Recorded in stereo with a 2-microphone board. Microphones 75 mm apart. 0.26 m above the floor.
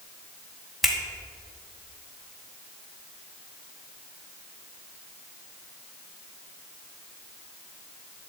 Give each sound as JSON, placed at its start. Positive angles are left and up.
{"t": 0.8, "sound": "a finger snap", "side_deg": 0, "distance_m": 2.0}